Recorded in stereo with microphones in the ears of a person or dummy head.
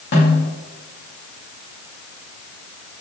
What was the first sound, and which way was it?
A snare drum, 50° left (ahead or behind).